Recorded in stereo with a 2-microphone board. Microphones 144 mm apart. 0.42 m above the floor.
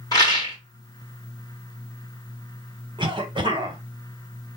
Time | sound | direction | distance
0.1 | a rattle | 30° left (ahead or behind) | 1.4 m
3.0 | a cough | 35° right (ahead or behind) | 1.1 m